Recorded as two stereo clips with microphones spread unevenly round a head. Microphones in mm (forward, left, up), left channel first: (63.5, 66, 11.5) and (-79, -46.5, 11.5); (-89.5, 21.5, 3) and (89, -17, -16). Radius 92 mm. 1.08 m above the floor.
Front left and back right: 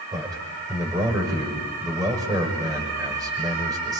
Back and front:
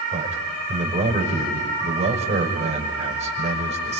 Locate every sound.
0.1 s a man speaking: 70° right, 6 m